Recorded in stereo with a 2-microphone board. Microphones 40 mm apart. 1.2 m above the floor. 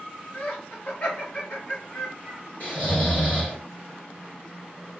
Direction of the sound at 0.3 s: 50° left (ahead or behind).